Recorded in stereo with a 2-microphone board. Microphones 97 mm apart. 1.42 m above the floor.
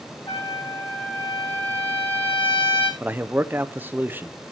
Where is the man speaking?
20° right (ahead or behind), 0.8 m.